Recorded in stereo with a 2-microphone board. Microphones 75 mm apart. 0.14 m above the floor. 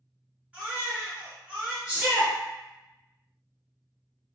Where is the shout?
20° right (ahead or behind), 1.7 m.